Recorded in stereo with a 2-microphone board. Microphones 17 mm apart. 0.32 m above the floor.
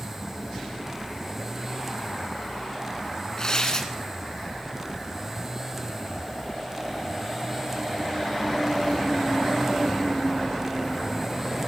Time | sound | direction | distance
3.4 | tearing paper | 40° left (ahead or behind) | 2.0 m